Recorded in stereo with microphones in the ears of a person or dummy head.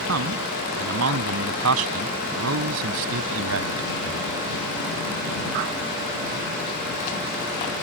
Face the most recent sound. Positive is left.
turn(degrees=-85)